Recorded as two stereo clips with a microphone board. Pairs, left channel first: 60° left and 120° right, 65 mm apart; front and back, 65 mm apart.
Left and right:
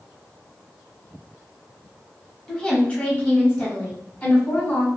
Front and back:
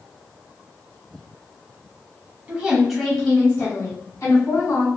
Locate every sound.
2.5 s a woman speaking: 130° left, 1.0 m; by 4.9 s 10° left, 1.7 m